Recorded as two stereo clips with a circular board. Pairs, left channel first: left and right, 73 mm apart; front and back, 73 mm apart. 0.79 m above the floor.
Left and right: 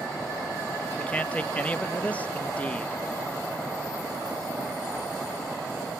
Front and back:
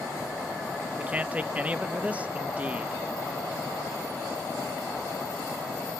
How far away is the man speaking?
About 0.8 m.